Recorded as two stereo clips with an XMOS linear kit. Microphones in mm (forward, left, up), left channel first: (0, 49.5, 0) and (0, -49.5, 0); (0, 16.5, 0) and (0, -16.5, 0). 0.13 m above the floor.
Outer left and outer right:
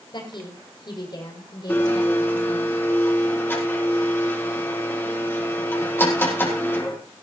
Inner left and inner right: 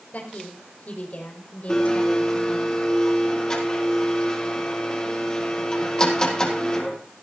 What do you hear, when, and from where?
0.1 s a woman speaking: 55° left (ahead or behind), 6 m; by 2.7 s 45° left (ahead or behind), 7 m
1.7 s a blender: 20° left (ahead or behind), 4 m